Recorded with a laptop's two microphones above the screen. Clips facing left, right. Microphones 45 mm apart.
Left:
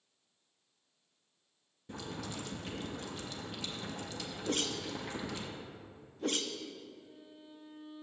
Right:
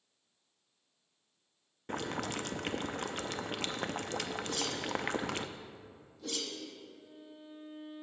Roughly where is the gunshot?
I don't hear a gunshot.